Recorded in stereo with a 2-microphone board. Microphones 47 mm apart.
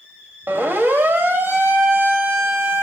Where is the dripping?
I don't hear dripping.